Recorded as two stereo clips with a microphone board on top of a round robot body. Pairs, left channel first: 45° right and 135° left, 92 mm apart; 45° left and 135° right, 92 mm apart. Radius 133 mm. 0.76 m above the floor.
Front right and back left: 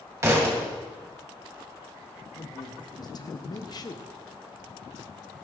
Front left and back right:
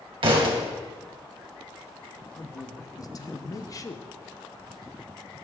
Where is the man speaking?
5° right, 1.0 m.